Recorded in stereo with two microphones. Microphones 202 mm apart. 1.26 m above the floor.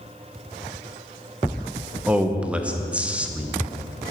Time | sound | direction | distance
2.1 | a man speaking | 5° right (ahead or behind) | 0.7 m